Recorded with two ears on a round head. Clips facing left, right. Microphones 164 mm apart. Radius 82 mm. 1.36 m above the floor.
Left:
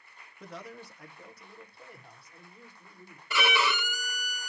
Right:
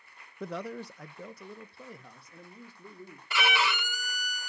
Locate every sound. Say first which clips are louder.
0.4 s a man speaking: right 8 dB; 45° right (ahead or behind), 0.5 m; by 3.2 s 65° right (ahead or behind), 3 m
3.3 s a violin: left 1 dB; 85° left, 0.8 m